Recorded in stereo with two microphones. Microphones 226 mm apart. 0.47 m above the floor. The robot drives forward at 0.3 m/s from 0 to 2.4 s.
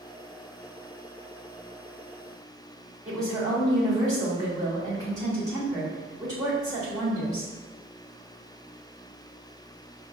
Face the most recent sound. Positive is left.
turn(degrees=-15)  # may be behind; listen again after turning